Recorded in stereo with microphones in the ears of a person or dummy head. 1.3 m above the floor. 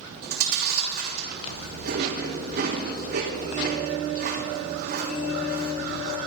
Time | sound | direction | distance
0.2 | chewing | 50° right (ahead or behind) | 3 m